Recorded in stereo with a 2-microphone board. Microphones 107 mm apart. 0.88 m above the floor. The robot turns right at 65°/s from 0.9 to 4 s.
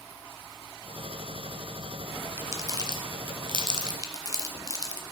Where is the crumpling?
20° right (ahead or behind), 0.9 m; by 5.0 s 35° right (ahead or behind), 0.9 m.